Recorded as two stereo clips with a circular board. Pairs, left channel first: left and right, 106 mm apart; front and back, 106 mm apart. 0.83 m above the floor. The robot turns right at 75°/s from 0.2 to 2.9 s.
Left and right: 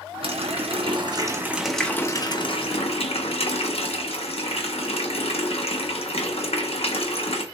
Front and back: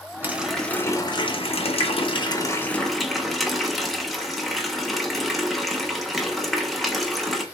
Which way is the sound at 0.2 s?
110° right.